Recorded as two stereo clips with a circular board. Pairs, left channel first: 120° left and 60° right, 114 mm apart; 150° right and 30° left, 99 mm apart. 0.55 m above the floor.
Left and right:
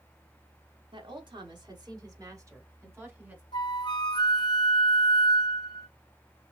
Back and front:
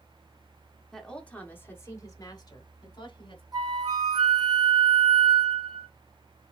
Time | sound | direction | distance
0.9 | a woman speaking | 65° right | 1.5 m
3.5 | a flute | 75° left | 1.4 m